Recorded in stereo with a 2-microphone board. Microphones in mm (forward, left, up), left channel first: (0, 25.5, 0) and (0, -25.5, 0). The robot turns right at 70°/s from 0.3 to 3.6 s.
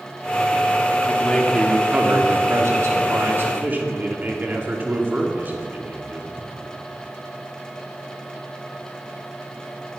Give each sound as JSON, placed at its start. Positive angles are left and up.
{"t": 1.1, "sound": "a man speaking", "azimuth_deg": 145, "distance_m": 2.5}